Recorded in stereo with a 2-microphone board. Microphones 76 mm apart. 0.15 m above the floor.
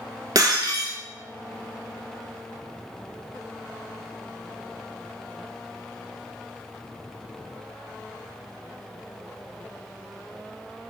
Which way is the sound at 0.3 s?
60° right (ahead or behind).